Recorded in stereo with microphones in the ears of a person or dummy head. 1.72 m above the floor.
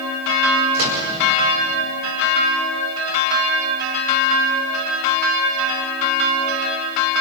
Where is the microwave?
50° right (ahead or behind), 5 m.